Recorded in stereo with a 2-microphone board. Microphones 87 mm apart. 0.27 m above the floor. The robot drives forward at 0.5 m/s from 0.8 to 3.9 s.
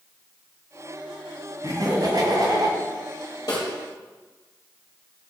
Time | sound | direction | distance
1.6 | laughter | 60° right (ahead or behind) | 2 m
3.5 | a snare drum | 55° left (ahead or behind) | 3 m